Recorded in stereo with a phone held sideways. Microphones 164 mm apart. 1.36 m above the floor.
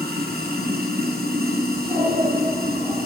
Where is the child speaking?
75° right (ahead or behind), 9.5 m.